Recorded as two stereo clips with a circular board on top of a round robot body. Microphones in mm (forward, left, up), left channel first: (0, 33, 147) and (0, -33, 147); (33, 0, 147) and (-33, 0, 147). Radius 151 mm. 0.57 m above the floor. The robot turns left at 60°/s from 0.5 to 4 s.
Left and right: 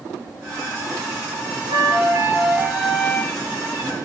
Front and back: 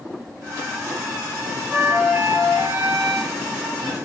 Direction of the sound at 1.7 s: 100° right.